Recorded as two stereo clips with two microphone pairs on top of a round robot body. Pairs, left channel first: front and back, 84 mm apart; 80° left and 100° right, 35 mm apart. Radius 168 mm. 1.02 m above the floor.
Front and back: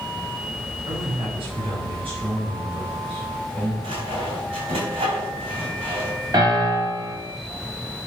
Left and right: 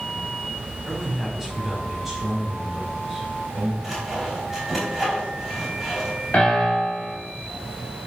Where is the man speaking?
175° left, 5 m.